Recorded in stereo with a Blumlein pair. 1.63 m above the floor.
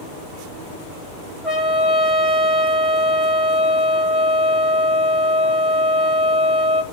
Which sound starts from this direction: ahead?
A trumpet, at 1.4 s.